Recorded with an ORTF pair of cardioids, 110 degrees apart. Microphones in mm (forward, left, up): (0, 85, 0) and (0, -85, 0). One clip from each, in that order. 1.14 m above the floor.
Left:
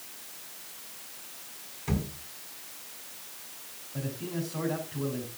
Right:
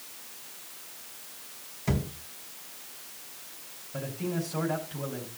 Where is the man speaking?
70° right, 5 m.